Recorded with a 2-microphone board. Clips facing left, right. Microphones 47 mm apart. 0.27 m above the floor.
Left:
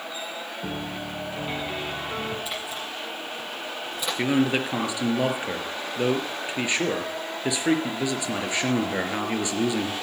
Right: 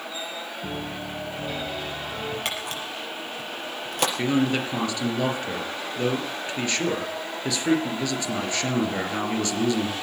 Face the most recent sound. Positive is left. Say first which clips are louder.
# left 3 dB
turn(degrees=20)  # may be behind; listen again after turning